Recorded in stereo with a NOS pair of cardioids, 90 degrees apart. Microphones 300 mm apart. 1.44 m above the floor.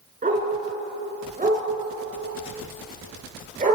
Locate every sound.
0.2 s a dog barking: 25° right, 7.5 m